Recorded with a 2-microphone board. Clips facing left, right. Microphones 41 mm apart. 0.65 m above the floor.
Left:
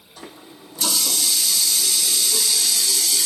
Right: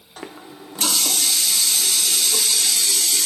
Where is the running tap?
50° right (ahead or behind), 0.6 m.